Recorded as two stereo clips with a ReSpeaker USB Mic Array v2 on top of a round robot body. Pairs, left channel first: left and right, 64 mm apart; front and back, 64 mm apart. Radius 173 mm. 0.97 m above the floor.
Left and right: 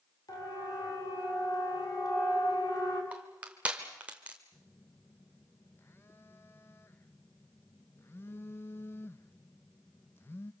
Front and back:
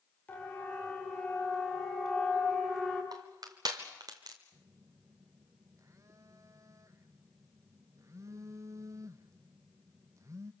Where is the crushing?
160° right, 0.9 m.